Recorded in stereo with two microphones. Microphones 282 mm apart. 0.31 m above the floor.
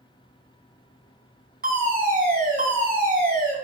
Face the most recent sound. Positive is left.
turn(degrees=-35)  # may be behind; listen again after turning